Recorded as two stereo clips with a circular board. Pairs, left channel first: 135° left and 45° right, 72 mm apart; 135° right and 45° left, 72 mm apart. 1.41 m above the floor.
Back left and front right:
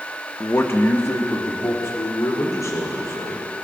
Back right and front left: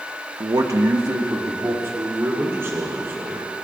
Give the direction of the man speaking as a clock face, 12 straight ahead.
10 o'clock.